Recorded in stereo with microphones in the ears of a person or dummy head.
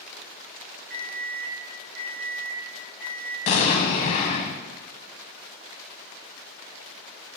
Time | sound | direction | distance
0.9 | an alarm clock | 60° right (ahead or behind) | 2.5 m
3.5 | an explosion | 40° left (ahead or behind) | 0.8 m